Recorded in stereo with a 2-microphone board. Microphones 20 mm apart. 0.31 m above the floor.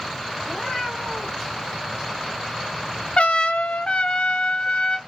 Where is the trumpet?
60° left (ahead or behind), 0.5 m.